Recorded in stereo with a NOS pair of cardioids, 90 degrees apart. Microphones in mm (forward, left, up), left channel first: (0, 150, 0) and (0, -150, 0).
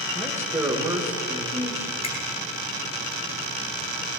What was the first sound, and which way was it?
A man speaking, 10° right.